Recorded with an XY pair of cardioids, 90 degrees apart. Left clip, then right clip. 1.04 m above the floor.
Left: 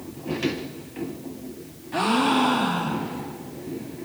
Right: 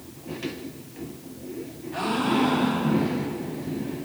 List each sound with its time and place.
1.9 s a gasp: 50° left, 0.6 m